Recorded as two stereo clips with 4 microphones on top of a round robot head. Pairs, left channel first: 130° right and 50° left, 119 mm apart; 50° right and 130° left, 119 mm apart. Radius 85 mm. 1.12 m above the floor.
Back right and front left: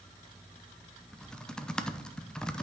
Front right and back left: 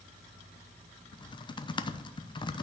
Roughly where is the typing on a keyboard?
Ahead right.